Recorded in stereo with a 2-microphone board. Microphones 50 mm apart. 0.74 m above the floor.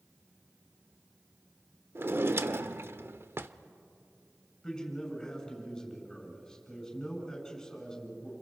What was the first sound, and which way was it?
A drawer, 50° right (ahead or behind).